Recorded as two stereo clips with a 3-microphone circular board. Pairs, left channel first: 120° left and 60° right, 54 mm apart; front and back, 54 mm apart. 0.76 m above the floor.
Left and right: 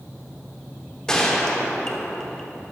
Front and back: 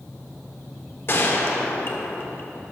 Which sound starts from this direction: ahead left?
A gunshot, at 1.1 s.